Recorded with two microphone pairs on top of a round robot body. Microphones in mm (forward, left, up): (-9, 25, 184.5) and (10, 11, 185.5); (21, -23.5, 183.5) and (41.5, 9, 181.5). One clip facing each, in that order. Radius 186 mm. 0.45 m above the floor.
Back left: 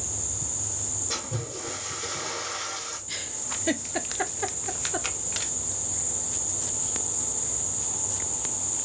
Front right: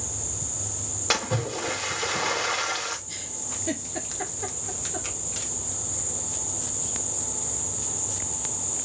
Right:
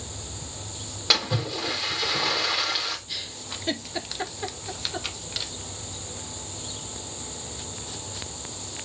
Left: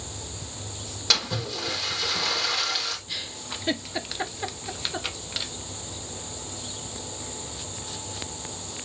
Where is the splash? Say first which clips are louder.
Front right 9 dB, right 2 dB; 50° right, 1.4 m.